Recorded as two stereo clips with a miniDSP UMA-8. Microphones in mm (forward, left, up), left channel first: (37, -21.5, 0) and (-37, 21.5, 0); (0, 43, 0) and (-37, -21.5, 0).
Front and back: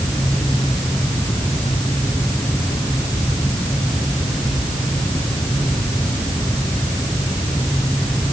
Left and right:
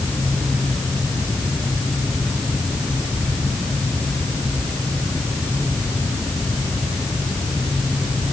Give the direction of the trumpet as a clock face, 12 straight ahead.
No trumpet in this recording.